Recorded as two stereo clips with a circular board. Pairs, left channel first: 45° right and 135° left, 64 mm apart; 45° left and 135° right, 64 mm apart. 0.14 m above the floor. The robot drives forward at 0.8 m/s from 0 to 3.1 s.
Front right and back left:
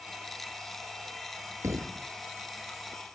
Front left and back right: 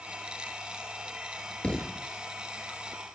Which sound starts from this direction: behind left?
A thud, at 1.6 s.